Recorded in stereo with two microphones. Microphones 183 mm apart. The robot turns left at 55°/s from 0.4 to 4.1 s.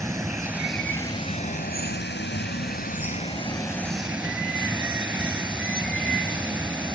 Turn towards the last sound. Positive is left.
turn(degrees=-5)